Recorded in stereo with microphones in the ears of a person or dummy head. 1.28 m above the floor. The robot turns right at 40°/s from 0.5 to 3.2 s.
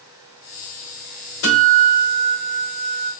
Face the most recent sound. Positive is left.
turn(degrees=175)